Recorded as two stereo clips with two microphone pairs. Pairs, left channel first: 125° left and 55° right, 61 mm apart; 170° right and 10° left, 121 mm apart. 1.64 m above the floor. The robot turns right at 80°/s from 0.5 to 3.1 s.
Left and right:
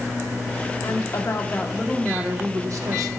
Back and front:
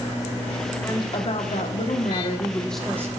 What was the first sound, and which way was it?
A woman speaking, 125° left.